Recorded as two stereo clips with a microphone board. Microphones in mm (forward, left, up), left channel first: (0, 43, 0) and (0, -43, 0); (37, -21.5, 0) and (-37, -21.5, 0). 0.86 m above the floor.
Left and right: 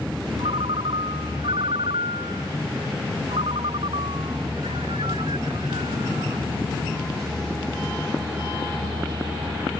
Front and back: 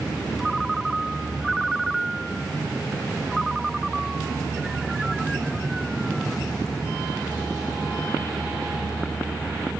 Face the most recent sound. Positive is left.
turn(degrees=-90)